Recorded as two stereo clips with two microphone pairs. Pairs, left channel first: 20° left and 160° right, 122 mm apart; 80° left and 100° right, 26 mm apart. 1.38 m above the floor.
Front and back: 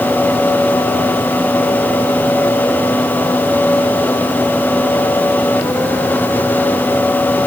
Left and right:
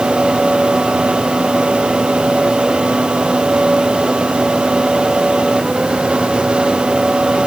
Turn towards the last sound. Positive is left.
No sound to turn to.